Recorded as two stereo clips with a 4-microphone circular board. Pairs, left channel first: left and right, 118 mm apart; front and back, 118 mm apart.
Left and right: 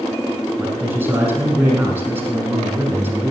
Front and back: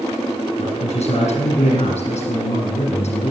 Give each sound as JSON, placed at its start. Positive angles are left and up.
{"t": 0.6, "sound": "a man speaking", "azimuth_deg": -20, "distance_m": 6.5}